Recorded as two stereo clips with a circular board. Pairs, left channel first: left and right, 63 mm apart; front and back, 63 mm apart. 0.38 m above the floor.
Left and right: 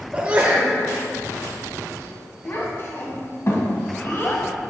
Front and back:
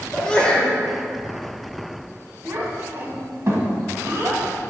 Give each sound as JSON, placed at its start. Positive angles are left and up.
{"t": 0.1, "sound": "a sneeze", "azimuth_deg": -55, "distance_m": 1.0}
{"t": 2.5, "sound": "a child speaking", "azimuth_deg": 135, "distance_m": 1.5}